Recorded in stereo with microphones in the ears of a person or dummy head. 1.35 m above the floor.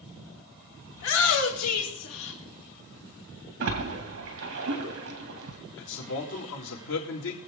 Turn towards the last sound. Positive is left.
turn(degrees=80)